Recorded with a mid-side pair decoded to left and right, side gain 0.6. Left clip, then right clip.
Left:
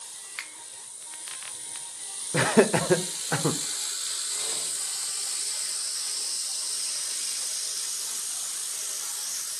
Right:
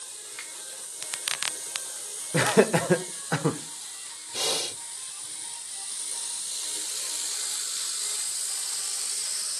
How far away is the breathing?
About 1.1 m.